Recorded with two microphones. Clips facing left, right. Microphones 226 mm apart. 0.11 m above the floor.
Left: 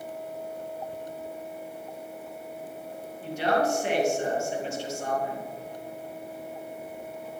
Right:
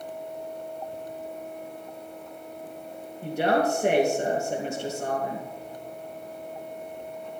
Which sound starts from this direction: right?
A woman speaking, at 3.2 s.